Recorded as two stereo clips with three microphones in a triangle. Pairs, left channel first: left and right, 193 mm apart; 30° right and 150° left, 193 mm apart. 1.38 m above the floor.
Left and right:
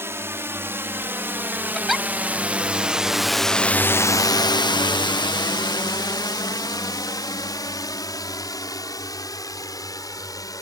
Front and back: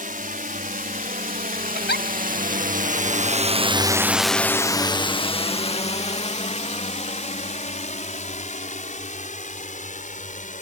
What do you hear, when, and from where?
0.0 s a drone: 165° right; by 10.6 s 20° left
1.8 s a giggle: straight ahead